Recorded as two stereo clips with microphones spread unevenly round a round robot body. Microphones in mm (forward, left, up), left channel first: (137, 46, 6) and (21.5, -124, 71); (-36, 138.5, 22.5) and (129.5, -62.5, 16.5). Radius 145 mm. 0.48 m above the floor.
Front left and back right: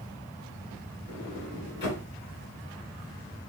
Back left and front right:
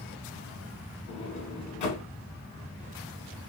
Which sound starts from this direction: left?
A sliding door, at 1.1 s.